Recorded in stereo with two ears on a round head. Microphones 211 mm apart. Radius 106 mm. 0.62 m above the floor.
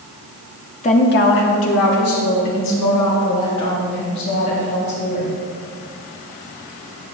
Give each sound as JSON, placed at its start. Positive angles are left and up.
{"t": 0.8, "sound": "a woman speaking", "side_deg": 25, "distance_m": 0.7}